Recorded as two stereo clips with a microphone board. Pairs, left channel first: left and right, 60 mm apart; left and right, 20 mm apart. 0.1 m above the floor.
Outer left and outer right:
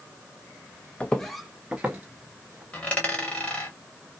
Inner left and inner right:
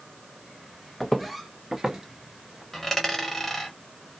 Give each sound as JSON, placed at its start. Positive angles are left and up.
{"t": 1.0, "sound": "footsteps", "side_deg": 20, "distance_m": 0.5}
{"t": 2.7, "sound": "a dropped coin", "side_deg": 25, "distance_m": 1.2}